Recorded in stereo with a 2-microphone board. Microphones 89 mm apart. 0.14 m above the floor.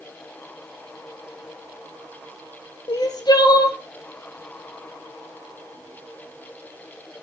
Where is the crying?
50° left (ahead or behind), 0.9 m.